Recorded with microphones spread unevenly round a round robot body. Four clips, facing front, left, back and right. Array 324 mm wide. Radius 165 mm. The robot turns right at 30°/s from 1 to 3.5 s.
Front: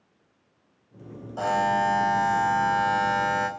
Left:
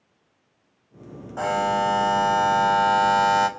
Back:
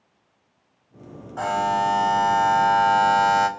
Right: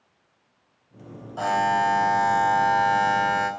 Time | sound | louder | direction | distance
1.4 | a buzzer | right 1 dB, back 1 dB | 55° left | 2.5 m